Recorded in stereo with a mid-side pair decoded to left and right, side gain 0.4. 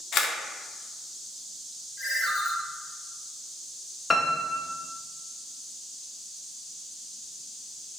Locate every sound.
0.1 s a camera shutter: 65° left, 0.7 m
2.0 s a ringtone: 40° left, 1.6 m
4.1 s a piano: 30° left, 0.7 m